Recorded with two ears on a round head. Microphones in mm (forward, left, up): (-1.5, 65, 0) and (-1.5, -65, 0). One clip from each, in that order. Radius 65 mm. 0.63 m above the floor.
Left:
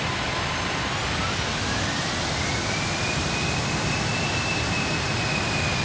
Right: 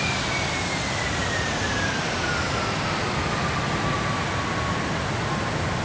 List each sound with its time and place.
Only background noise.